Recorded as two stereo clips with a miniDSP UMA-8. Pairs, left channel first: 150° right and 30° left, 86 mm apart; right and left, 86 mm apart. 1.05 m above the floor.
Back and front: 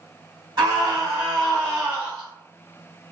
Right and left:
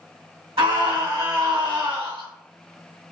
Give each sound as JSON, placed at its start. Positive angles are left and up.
{"t": 0.6, "sound": "a scream", "azimuth_deg": 70, "distance_m": 1.0}